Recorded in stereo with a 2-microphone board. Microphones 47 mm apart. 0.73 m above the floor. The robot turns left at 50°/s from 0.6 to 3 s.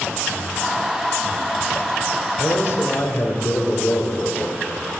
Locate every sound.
2.4 s a man speaking: 105° left, 3 m; by 4.6 s 70° left, 3 m